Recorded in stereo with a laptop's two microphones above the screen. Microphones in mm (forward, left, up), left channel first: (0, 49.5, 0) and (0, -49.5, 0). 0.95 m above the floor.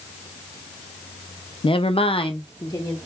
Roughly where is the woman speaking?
Left.